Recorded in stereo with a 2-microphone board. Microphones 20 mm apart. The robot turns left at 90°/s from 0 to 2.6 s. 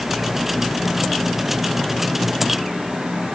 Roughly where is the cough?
I don't hear a cough.